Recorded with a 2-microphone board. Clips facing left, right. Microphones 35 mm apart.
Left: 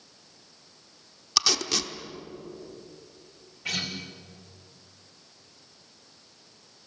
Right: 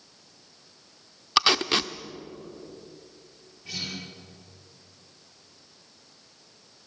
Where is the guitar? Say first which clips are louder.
Left 4 dB; 85° left, 5 m.